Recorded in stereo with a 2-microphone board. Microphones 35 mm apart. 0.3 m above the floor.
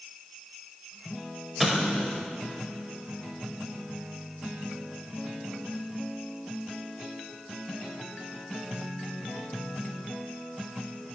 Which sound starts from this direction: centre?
An explosion, at 1.6 s.